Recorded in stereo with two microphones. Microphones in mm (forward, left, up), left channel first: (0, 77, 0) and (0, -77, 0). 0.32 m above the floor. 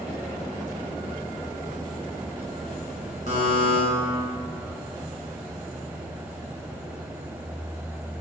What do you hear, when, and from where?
3.3 s a buzzer: 55° right (ahead or behind), 1.1 m